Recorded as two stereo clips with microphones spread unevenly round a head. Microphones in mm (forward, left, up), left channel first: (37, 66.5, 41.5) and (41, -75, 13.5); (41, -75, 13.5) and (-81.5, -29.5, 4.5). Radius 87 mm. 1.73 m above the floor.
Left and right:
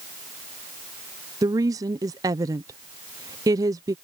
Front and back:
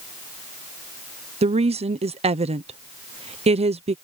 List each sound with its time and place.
1.4 s a woman speaking: 160° right